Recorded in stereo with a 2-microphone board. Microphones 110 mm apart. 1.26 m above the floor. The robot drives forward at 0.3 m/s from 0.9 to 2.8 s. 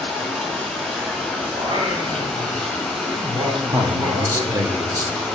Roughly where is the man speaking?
Right.